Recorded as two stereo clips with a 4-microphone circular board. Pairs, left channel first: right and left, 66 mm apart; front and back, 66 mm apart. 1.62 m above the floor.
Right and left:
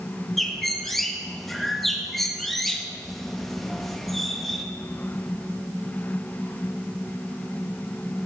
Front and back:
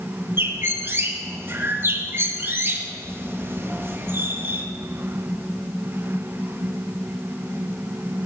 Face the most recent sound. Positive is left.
turn(degrees=-170)